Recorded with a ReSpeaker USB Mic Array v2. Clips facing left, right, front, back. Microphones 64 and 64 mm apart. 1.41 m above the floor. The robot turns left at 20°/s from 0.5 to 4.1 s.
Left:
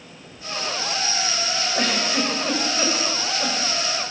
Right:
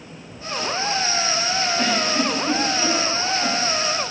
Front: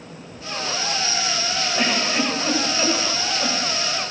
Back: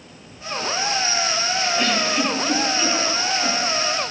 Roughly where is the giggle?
Left.